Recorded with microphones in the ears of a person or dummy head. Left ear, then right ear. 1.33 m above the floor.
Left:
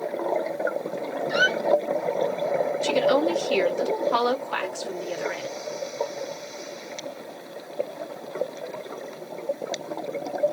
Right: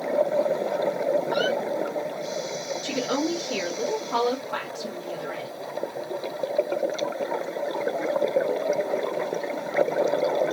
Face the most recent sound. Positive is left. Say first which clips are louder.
# left 5 dB
turn(degrees=80)